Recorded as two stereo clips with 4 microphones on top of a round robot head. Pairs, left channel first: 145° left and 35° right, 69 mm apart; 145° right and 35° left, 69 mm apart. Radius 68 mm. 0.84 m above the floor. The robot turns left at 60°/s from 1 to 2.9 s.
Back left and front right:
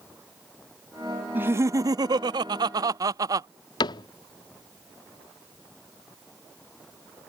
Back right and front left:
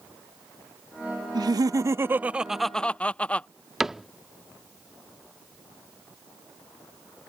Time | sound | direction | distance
1.4 | laughter | 25° left | ?
3.8 | a cupboard door | 125° left | ?